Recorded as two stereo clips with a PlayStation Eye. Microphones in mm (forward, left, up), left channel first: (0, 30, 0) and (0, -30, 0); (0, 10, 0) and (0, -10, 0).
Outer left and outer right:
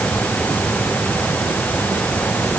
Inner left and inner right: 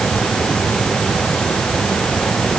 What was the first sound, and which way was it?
Only background noise.